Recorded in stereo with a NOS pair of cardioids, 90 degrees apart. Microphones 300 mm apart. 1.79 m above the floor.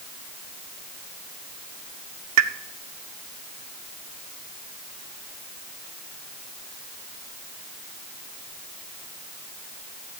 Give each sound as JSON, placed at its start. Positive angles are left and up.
{"t": 2.4, "sound": "a pop", "azimuth_deg": -65, "distance_m": 0.8}